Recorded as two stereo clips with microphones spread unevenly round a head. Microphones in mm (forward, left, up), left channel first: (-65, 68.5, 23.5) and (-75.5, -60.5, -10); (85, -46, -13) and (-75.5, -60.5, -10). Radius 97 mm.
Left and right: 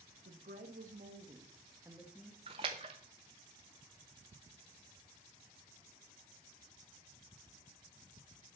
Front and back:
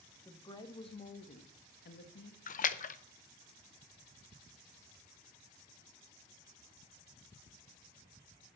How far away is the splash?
About 0.7 m.